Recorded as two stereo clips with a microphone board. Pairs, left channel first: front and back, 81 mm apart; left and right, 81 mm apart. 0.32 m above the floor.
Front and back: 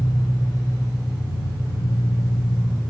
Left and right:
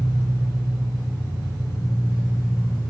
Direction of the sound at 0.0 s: 45° left.